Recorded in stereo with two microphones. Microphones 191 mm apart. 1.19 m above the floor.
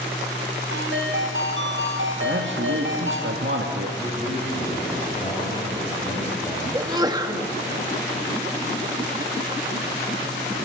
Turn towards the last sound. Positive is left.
turn(degrees=-20)  # may be behind; listen again after turning